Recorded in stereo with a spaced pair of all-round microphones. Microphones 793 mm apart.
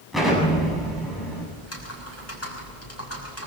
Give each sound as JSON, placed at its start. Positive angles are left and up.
{"t": 0.1, "sound": "an explosion", "side_deg": 0, "distance_m": 8.5}
{"t": 1.6, "sound": "typing on a keyboard", "side_deg": 20, "distance_m": 5.5}